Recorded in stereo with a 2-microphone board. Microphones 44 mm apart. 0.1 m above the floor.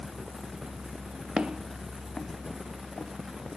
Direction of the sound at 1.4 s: 20° right (ahead or behind).